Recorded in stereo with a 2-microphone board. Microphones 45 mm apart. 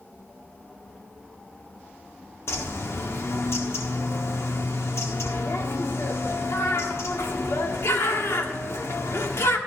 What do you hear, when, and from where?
2.5 s a bird: 65° left (ahead or behind), 1.2 m